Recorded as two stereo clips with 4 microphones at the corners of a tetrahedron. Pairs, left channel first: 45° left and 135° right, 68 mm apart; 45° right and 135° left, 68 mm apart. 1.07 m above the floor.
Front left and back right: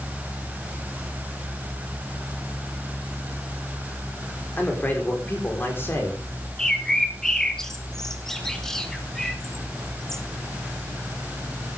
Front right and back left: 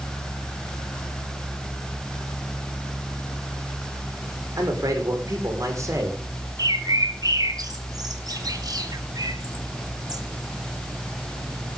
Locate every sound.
4.6 s a man speaking: 110° left, 4 m; by 6.2 s 95° left, 4 m
6.6 s a bird: 125° left, 1.4 m